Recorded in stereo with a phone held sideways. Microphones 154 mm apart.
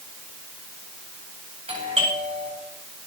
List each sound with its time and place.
1.7 s a doorbell: 45° right (ahead or behind), 9.5 m